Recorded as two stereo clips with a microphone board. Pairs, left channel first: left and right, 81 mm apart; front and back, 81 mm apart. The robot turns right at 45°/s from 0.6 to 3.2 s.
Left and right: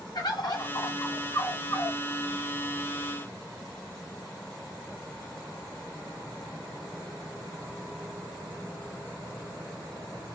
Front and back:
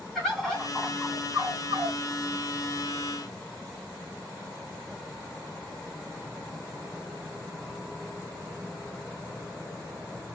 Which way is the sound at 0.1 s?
85° left.